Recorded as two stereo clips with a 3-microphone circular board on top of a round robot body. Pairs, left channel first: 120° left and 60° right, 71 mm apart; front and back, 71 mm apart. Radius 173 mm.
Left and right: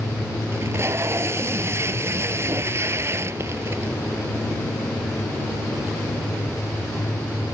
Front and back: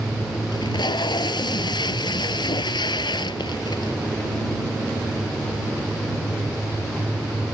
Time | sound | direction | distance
0.5 | tape being pulled | 10° right | ?